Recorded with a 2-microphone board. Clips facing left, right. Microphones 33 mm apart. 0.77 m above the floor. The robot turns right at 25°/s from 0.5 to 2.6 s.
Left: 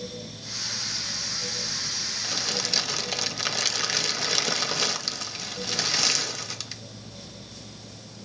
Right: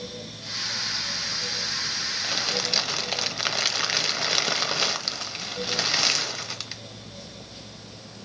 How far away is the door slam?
No door slam in this recording.